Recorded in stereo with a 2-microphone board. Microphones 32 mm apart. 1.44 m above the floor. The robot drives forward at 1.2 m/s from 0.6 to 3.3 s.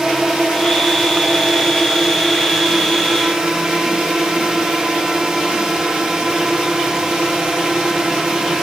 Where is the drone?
15° right (ahead or behind); by 8.6 s 20° right (ahead or behind).